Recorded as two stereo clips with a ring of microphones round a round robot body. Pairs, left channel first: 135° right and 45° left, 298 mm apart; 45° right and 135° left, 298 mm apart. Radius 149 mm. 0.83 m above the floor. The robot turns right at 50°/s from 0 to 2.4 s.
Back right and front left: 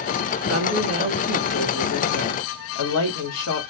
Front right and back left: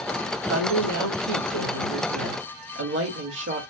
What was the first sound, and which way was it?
A woman speaking, 90° left.